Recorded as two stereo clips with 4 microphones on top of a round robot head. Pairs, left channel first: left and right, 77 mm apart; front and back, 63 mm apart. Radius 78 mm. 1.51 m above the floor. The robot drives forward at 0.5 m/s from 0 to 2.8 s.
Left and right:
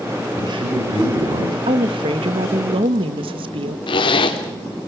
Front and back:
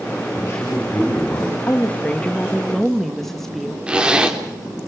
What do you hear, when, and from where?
0.3 s a man speaking: 55° right, 8 m; by 1.6 s 60° right, 7.5 m
1.7 s a woman speaking: 70° right, 2.0 m; by 3.8 s 90° right, 1.9 m
3.9 s a zipper: 105° left, 3.5 m